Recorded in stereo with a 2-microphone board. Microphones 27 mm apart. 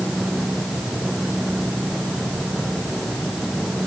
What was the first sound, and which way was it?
Only background noise.